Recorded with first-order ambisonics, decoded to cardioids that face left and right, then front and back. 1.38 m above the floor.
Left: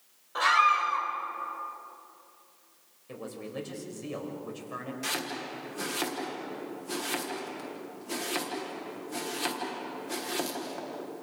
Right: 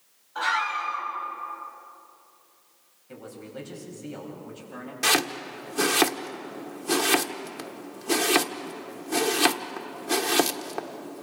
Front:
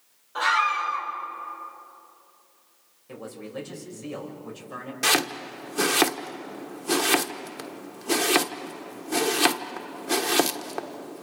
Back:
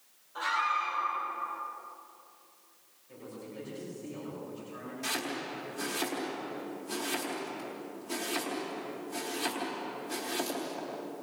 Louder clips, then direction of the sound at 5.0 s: Right 11 dB, front 12 dB; 35° right.